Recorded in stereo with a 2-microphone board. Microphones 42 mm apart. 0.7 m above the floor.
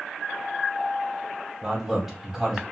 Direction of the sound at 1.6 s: 10° right (ahead or behind).